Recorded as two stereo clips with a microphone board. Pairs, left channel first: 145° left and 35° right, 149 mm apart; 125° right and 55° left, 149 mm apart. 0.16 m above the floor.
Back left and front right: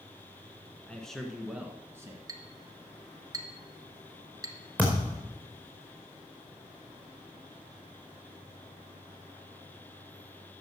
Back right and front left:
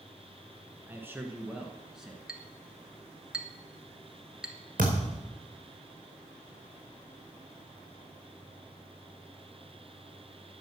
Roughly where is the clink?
Ahead.